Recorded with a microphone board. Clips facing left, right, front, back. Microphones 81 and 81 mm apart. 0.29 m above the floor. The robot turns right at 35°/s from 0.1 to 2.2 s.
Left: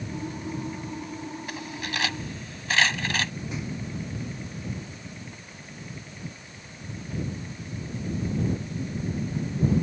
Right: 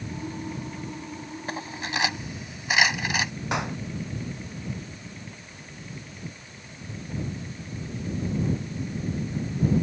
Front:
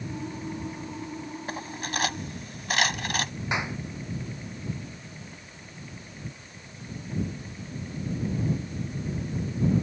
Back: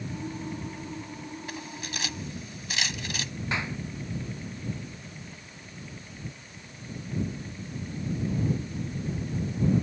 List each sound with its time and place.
1.5 s cutlery clinking: 40° right; by 3.3 s 15° right
3.5 s a clap: 75° right